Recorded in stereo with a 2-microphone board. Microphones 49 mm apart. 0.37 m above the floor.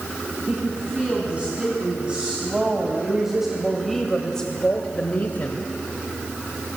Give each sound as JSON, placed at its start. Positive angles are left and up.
{"t": 0.5, "sound": "a woman speaking", "side_deg": -30, "distance_m": 4.5}